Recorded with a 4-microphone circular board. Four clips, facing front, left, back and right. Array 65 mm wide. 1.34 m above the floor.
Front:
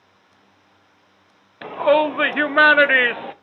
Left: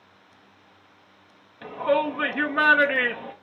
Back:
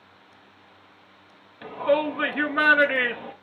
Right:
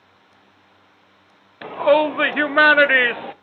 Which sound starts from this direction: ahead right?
A shout, at 1.6 s.